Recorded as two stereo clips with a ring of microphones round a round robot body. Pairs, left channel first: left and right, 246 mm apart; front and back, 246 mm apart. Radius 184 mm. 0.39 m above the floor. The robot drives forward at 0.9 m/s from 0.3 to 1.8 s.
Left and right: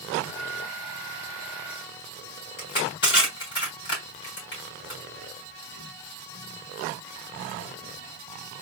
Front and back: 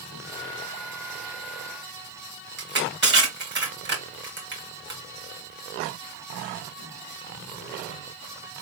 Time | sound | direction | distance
2.6 | crushing | 140° left | 2.5 m